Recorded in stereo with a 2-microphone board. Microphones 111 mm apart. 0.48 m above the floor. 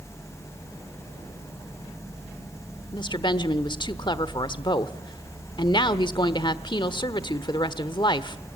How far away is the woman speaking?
About 1.1 m.